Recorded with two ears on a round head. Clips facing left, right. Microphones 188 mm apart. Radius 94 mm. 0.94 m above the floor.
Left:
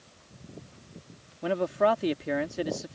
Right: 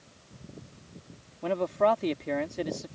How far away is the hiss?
I don't hear a hiss.